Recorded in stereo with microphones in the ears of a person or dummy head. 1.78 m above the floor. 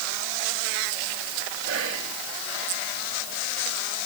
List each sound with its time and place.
1.6 s whispering: 70° right (ahead or behind), 1.3 m